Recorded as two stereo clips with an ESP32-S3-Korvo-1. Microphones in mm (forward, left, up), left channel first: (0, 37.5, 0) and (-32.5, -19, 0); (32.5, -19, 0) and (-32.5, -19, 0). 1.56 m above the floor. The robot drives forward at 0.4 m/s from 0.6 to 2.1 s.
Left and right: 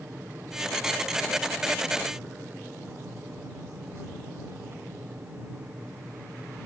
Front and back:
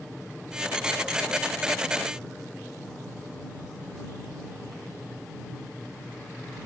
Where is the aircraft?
85° right; by 6.7 s 90° right.